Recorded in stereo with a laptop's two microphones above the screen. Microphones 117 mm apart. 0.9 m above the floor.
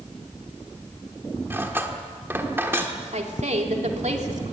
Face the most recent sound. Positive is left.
turn(degrees=-70)  # may be behind; listen again after turning